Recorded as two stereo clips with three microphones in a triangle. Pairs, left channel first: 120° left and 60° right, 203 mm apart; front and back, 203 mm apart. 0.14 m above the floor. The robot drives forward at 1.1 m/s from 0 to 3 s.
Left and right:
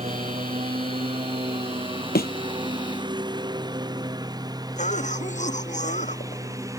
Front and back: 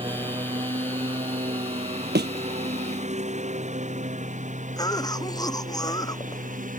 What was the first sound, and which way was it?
A lawn mower, 115° right.